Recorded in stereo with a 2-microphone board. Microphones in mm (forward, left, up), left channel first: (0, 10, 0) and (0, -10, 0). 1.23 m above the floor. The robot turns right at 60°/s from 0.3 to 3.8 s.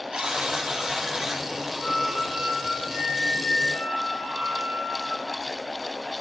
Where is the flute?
160° left, 3.5 m; by 5.2 s 80° right, 3.5 m.